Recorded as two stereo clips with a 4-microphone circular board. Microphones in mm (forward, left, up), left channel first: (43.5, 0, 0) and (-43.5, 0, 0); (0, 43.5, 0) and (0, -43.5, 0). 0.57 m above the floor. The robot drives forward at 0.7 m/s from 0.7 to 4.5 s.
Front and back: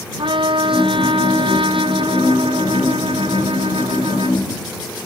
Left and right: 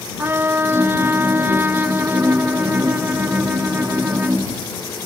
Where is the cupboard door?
No cupboard door in this recording.